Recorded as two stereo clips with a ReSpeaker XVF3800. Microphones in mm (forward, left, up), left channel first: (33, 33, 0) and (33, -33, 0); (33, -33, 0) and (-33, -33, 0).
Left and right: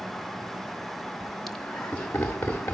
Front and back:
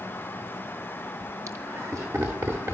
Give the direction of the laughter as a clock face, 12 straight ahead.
6 o'clock.